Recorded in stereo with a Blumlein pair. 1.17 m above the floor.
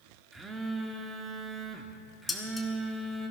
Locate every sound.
0.3 s a phone buzzing: 10° right, 1.4 m
2.3 s dishes clattering: 5° left, 1.8 m